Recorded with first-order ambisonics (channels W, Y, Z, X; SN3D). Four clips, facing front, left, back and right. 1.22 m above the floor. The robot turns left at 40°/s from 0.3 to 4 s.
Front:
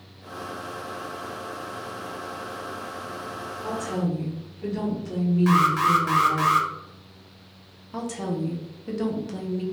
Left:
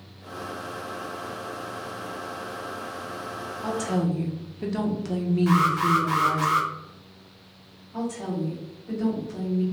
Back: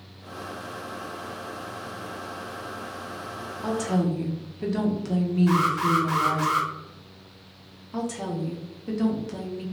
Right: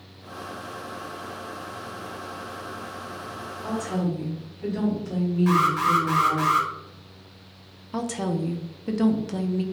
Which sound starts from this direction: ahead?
An alarm, at 5.5 s.